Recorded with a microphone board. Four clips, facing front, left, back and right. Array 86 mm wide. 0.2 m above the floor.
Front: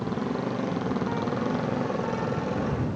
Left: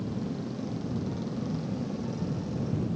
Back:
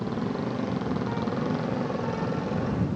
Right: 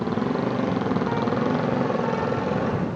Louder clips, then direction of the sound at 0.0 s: Right 10 dB, front 1 dB; 85° right.